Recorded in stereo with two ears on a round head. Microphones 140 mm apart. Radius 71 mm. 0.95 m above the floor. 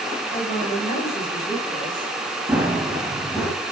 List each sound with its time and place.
0.3 s a man speaking: 40° left (ahead or behind), 7.5 m; by 2.1 s 30° left (ahead or behind), 7.5 m
2.5 s running footsteps: 10° right (ahead or behind), 4.5 m; by 3.5 s 5° left (ahead or behind), 4 m